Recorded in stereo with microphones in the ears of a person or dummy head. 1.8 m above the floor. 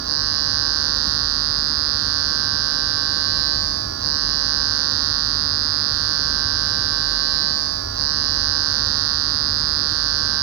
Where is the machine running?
80° right.